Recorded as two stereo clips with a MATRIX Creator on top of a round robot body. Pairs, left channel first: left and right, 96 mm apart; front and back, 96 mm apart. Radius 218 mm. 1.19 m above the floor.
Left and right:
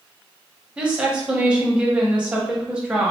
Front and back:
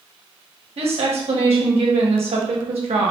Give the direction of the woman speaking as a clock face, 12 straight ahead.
6 o'clock.